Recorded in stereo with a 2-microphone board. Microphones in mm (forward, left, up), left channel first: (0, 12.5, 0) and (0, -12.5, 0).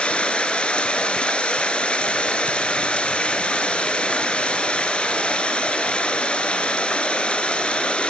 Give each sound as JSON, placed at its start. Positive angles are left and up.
{"t": 0.0, "sound": "running water", "side_deg": 50, "distance_m": 0.9}